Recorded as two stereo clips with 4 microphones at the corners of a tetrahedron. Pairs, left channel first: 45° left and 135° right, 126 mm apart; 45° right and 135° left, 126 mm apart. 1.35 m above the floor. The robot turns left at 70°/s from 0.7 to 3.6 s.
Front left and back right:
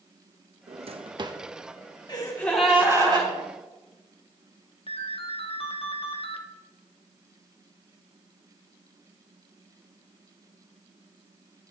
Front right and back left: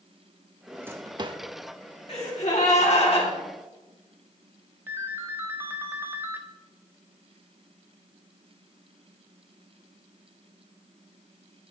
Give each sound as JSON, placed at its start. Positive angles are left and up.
{"t": 0.7, "sound": "a drawer", "azimuth_deg": -140, "distance_m": 0.8}
{"t": 2.1, "sound": "a gasp", "azimuth_deg": -10, "distance_m": 3.5}
{"t": 4.9, "sound": "a ringtone", "azimuth_deg": 65, "distance_m": 1.2}